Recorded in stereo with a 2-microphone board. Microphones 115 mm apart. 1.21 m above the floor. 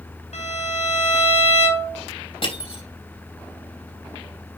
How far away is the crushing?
About 5 m.